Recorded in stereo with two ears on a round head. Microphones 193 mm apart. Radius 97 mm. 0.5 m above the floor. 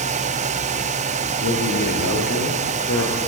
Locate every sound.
1.4 s a man speaking: 65° left (ahead or behind), 8.5 m; by 3.2 s 60° left (ahead or behind), 6 m